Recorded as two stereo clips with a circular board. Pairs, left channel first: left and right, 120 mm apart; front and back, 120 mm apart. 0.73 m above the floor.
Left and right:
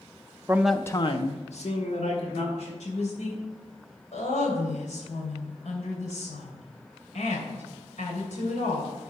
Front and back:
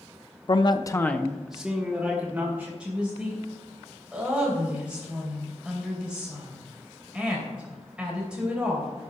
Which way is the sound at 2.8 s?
100° left.